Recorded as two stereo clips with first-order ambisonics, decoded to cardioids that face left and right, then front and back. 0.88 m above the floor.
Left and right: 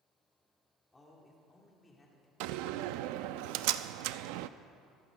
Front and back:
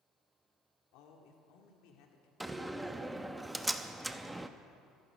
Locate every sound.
0.9 s a man speaking: 10° left, 2.5 m
2.4 s a door slam: 95° right, 0.5 m